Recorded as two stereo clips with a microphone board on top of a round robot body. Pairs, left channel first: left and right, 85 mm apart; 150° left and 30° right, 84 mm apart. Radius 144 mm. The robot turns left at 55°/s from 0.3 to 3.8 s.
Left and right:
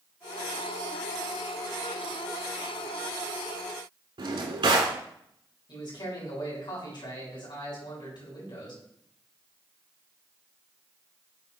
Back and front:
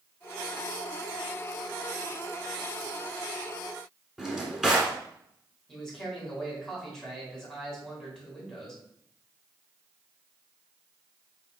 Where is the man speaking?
70° left, 3.5 m.